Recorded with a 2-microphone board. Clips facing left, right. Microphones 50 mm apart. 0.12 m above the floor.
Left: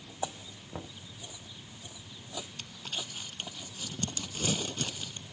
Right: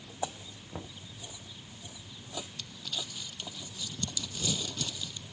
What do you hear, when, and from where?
0.7 s knocking: 5° left (ahead or behind)
2.6 s crumpling: 40° left (ahead or behind)